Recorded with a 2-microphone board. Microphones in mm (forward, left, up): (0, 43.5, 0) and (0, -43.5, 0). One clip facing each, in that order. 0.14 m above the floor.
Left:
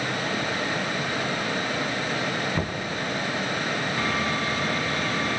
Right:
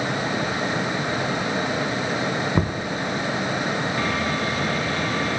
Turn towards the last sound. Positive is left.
turn(degrees=-35)  # may be behind; listen again after turning